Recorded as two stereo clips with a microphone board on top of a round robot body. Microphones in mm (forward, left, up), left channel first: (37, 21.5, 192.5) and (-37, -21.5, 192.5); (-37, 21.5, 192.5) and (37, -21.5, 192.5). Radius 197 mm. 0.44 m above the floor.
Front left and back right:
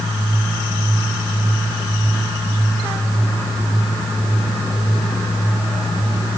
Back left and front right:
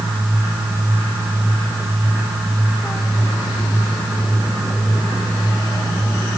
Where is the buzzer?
I don't hear a buzzer.